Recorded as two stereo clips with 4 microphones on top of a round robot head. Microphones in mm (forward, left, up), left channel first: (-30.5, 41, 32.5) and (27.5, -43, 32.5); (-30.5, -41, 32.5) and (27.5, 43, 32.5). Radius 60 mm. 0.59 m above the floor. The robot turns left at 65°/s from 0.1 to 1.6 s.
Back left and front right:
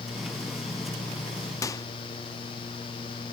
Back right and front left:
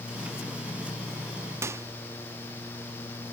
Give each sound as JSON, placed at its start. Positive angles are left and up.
{"t": 1.6, "sound": "a microwave", "azimuth_deg": 95}